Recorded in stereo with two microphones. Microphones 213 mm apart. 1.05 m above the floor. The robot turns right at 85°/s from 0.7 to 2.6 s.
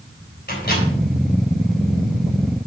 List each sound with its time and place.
0.5 s a microwave: 50° left (ahead or behind), 3.5 m; by 0.8 s 65° left (ahead or behind), 3.5 m